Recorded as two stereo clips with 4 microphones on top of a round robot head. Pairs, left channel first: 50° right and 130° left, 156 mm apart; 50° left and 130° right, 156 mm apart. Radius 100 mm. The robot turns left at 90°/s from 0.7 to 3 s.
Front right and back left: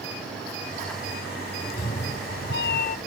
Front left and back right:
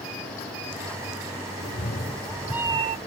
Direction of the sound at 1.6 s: 35° left.